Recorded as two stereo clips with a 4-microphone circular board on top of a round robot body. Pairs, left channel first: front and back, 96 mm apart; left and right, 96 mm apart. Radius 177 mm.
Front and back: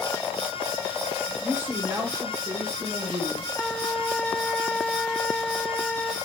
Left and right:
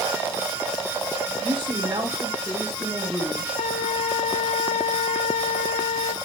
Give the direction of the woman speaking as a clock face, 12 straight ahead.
4 o'clock.